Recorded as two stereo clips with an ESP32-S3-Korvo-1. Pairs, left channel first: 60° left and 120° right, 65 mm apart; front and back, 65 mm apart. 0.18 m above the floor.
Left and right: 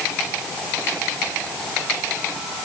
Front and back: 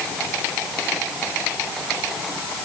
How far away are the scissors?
I don't hear scissors.